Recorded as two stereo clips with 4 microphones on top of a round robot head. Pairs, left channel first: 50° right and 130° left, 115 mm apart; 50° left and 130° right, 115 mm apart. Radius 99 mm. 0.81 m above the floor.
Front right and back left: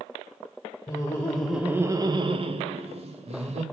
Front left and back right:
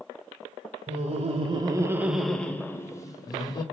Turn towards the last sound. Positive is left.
turn(degrees=105)